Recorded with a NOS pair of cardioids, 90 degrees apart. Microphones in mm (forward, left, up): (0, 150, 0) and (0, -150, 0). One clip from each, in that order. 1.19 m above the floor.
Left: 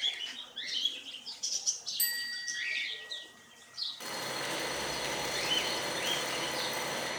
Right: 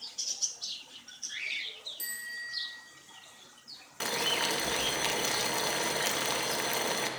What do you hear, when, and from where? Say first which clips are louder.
2.0 s a bicycle bell: left 1 dB; 50° left, 3 m
4.0 s boiling: right 12 dB; 65° right, 2 m